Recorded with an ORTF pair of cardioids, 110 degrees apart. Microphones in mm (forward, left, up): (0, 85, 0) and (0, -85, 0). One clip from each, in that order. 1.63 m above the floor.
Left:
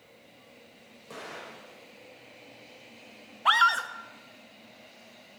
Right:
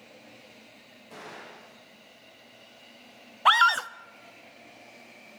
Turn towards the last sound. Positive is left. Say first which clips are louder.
# right 2 dB
turn(degrees=-30)